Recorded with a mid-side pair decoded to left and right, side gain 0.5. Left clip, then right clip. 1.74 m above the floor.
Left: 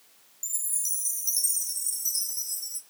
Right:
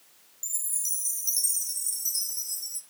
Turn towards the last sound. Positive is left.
turn(degrees=5)